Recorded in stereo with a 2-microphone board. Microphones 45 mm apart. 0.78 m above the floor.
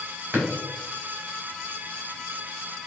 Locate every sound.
0.3 s a drawer: 50° right (ahead or behind), 1.8 m